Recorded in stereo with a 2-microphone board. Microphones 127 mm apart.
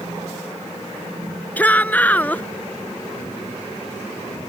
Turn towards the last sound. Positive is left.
turn(degrees=10)  # may be behind; listen again after turning